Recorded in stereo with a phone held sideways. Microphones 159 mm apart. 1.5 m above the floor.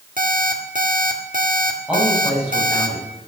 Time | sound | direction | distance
0.2 | an alarm clock | 60° right (ahead or behind) | 1.8 m
1.9 | a man speaking | 5° right (ahead or behind) | 10 m